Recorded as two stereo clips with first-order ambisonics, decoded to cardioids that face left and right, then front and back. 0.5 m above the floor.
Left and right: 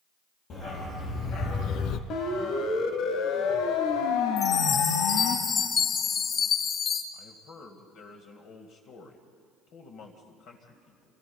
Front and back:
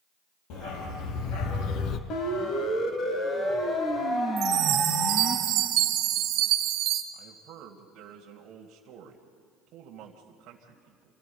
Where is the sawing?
No sawing in this recording.